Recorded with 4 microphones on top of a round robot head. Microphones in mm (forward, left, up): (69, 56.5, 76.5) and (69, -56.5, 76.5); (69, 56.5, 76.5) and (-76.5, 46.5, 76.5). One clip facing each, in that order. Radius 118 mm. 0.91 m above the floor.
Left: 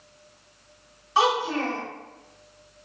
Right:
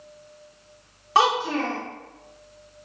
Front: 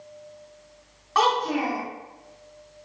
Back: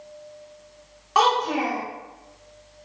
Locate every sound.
1.1 s a child speaking: 100° right, 1.0 m